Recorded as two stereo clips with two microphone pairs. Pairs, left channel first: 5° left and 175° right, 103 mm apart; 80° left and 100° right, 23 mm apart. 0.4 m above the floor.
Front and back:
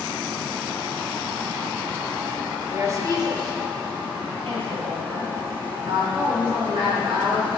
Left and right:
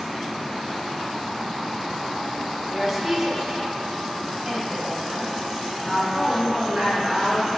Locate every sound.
2.7 s a woman speaking: 170° right, 1.1 m; by 7.5 s 165° right, 6 m